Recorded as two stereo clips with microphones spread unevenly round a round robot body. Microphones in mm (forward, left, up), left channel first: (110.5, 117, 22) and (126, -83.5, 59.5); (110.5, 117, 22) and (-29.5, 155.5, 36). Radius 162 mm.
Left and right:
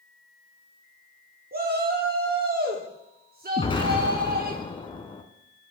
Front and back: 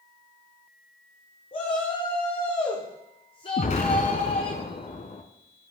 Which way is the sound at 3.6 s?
25° left.